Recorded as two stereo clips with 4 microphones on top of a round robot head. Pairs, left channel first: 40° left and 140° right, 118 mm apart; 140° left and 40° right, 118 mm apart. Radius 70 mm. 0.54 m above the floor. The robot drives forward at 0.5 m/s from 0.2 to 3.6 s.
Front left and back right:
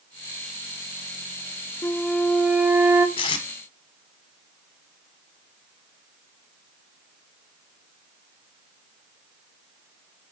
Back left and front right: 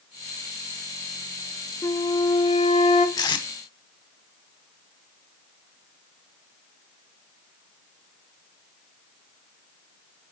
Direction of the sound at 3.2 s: 85° left.